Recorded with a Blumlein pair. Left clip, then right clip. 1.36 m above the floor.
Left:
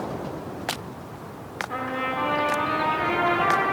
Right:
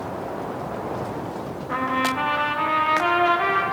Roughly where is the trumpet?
Ahead right.